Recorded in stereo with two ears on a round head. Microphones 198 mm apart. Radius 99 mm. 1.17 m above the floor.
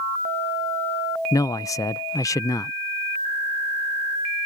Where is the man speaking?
15° left (ahead or behind).